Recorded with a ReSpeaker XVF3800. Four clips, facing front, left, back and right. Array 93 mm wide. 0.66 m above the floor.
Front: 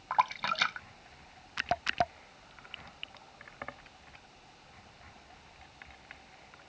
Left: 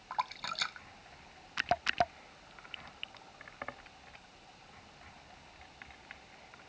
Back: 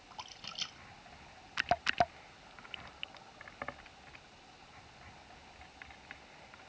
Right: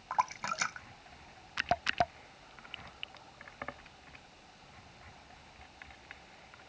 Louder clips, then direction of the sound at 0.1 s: Right 4 dB, front 21 dB; 20° right.